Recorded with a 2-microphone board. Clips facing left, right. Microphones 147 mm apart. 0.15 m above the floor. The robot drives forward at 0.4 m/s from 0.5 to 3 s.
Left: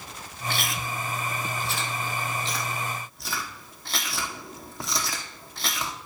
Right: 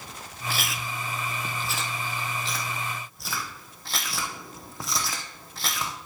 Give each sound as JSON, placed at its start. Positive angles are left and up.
{"t": 0.5, "sound": "chewing", "side_deg": -5, "distance_m": 0.6}